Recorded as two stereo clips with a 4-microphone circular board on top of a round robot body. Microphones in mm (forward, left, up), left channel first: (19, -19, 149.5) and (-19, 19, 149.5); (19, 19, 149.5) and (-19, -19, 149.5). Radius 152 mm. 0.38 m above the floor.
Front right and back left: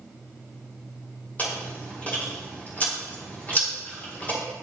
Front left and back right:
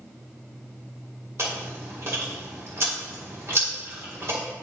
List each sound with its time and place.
1.4 s chewing: 100° right, 3 m